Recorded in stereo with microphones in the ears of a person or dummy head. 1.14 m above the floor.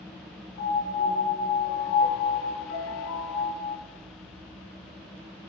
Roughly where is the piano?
Left.